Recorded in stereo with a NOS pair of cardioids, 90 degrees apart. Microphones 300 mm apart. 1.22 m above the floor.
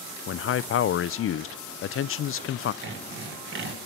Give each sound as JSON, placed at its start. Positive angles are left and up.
{"t": 0.3, "sound": "a man speaking", "azimuth_deg": 50, "distance_m": 0.5}
{"t": 2.8, "sound": "sawing", "azimuth_deg": -40, "distance_m": 1.8}